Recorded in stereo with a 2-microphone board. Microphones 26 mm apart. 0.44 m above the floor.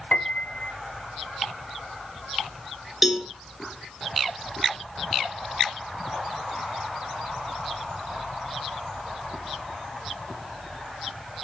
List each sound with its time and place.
0.1 s a piano: 45° left (ahead or behind), 0.7 m
3.0 s a cowbell: 10° right (ahead or behind), 2 m